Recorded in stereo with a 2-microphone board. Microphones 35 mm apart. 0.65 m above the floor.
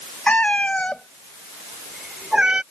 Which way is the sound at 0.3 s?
40° left (ahead or behind).